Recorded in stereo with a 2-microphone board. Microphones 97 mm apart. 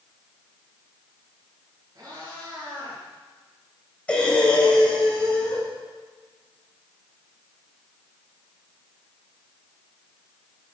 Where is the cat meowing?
45° right (ahead or behind), 10 m.